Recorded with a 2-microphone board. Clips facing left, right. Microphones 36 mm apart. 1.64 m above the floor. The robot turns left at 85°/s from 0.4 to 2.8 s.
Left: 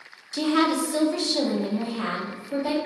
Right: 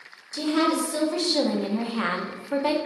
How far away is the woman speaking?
About 0.6 m.